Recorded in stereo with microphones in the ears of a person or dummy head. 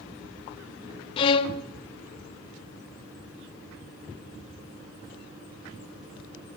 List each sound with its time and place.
1.2 s a violin: 35° left (ahead or behind), 0.5 m